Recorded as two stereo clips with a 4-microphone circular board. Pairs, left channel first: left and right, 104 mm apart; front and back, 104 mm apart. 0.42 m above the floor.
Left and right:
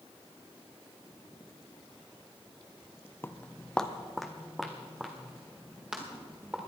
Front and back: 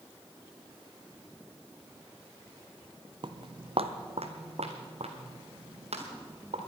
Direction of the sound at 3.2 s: 155° left.